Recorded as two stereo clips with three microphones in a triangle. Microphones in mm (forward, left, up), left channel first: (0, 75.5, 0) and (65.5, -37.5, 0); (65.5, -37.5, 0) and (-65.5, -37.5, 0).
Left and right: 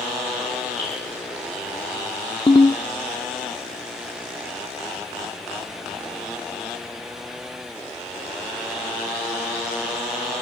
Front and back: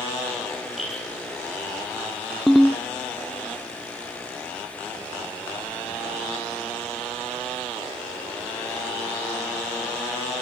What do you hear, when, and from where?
0.8 s dripping: 90° right, 9.5 m
2.5 s a ringtone: 90° left, 0.8 m